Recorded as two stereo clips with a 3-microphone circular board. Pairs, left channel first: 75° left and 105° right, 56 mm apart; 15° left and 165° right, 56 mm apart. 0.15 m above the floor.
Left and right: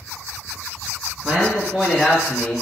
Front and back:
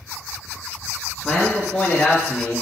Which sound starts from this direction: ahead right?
A man speaking, at 1.2 s.